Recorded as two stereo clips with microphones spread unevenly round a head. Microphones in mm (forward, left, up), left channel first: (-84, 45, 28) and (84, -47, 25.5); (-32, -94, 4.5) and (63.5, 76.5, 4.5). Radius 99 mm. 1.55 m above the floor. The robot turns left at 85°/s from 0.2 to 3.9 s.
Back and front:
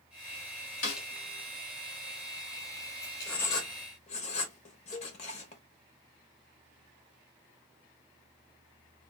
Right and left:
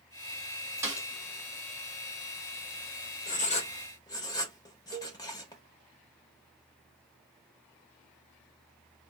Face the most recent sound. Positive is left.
turn(degrees=110)